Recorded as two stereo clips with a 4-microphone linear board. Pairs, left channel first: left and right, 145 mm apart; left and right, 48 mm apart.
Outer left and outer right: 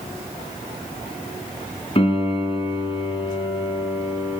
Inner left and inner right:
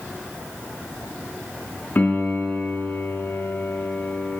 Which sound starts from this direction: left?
A piano, at 1.9 s.